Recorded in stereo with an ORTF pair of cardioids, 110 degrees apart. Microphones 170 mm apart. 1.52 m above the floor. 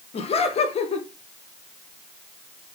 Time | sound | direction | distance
0.1 | laughter | 35° left | 1.4 m